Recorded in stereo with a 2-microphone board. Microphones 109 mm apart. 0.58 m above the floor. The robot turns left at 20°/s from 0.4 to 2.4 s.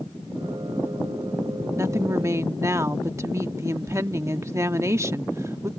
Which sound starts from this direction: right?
A woman speaking, at 1.8 s.